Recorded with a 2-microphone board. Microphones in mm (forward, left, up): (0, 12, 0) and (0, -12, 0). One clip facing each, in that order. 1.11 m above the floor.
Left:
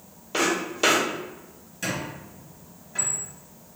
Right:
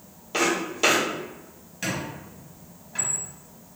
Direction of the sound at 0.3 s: 10° right (ahead or behind).